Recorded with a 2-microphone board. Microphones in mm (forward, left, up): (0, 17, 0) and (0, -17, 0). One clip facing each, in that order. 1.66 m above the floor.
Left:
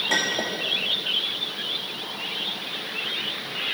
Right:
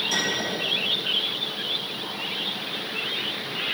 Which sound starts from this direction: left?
A clink, at 0.1 s.